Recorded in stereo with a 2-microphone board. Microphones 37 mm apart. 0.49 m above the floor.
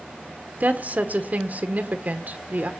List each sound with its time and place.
0.6 s a woman speaking: 45° right (ahead or behind), 1.3 m